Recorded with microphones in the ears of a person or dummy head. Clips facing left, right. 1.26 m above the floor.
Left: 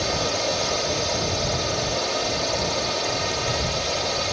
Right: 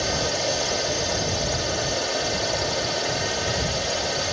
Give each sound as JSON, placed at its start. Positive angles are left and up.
{"t": 0.0, "sound": "a drone", "side_deg": -10}